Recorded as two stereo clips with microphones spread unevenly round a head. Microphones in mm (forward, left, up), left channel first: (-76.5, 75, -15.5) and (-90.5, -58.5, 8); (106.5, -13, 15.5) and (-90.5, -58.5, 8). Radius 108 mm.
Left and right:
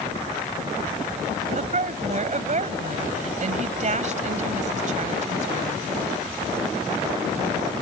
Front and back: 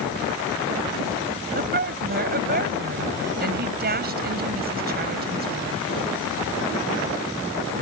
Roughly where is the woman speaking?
Behind right.